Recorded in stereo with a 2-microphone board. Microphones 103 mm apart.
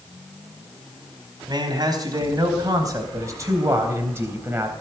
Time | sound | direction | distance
1.5 | a man speaking | 45° right (ahead or behind) | 4 m